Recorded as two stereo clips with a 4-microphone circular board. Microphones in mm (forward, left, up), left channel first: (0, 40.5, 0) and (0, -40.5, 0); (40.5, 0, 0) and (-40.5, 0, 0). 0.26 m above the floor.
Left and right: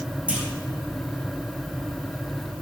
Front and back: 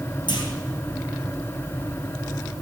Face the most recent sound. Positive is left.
turn(degrees=-15)